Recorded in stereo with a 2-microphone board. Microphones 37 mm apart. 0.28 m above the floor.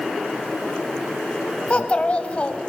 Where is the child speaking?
30° left (ahead or behind), 1.3 m.